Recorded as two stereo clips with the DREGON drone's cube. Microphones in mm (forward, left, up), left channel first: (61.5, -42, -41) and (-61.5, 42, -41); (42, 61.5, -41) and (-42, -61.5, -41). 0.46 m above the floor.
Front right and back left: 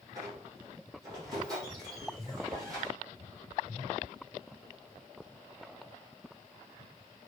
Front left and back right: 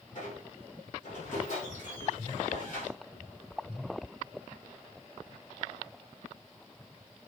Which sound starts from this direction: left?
A squeak, at 0.1 s.